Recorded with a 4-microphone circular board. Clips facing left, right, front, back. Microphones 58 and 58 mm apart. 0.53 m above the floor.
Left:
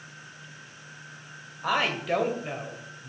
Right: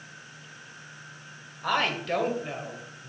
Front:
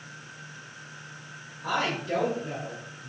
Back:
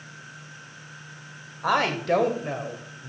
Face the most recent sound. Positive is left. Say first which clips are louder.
# even, back 6 dB
turn(degrees=170)